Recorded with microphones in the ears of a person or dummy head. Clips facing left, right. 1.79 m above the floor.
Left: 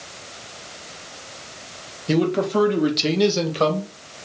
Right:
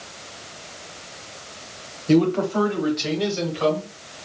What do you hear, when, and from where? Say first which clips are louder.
2.1 s a man speaking: right 2 dB; centre (ahead or behind), 1.2 m; by 3.9 s 70° left (ahead or behind), 1.4 m